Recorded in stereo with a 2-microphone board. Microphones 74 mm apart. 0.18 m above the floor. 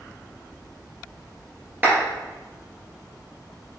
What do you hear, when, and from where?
1.8 s a clap: 25° right (ahead or behind), 2 m